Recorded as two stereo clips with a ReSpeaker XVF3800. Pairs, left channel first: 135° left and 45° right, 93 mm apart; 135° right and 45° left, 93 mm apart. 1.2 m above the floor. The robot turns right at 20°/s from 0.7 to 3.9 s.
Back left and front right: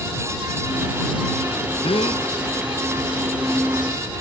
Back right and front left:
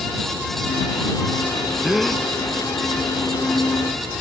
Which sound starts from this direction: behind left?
A gasp, at 1.8 s.